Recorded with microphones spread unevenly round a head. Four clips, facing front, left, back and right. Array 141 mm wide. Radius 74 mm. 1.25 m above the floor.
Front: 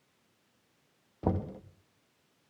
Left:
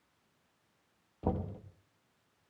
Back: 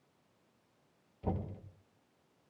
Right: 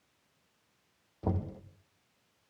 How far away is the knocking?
About 1.9 m.